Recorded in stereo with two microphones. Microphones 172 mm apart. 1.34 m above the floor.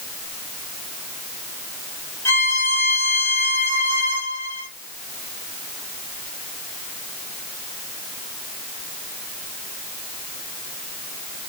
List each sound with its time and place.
2.2 s a violin: 15° left (ahead or behind), 1.7 m